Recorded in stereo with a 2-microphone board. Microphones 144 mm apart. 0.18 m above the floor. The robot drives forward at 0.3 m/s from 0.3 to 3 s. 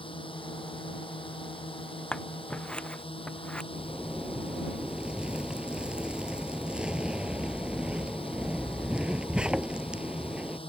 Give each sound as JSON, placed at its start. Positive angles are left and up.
{"t": 0.0, "sound": "a drone", "side_deg": 40}
{"t": 2.1, "sound": "scissors", "side_deg": 5}
{"t": 3.7, "sound": "a zipper", "side_deg": -5}